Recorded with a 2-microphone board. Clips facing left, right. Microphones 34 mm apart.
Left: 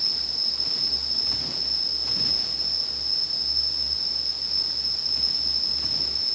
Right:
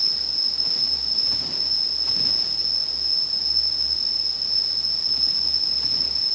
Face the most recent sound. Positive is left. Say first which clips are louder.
# right 2 dB
turn(degrees=50)  # may be behind; listen again after turning